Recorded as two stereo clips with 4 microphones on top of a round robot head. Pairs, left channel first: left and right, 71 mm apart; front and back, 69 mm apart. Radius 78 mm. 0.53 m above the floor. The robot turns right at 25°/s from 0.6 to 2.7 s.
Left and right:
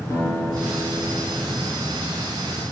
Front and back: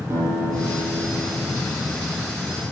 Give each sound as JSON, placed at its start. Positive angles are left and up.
{"t": 0.1, "sound": "a guitar", "azimuth_deg": 135, "distance_m": 4.0}